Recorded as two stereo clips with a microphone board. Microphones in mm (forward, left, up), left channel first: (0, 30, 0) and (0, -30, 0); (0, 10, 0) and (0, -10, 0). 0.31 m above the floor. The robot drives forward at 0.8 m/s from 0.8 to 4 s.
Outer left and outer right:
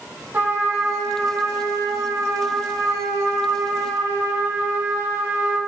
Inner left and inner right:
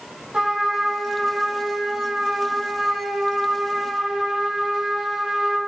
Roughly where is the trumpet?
Right.